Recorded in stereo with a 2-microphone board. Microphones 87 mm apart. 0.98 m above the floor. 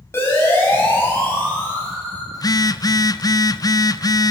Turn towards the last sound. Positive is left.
turn(degrees=45)  # may be behind; listen again after turning